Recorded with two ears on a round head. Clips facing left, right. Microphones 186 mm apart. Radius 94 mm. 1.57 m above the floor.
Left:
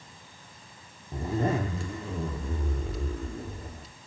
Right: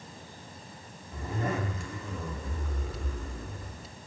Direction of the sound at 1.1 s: 30° left (ahead or behind).